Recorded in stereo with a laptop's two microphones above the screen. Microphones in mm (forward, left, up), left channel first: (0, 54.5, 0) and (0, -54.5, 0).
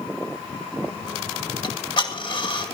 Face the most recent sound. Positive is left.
turn(degrees=45)  # may be behind; listen again after turning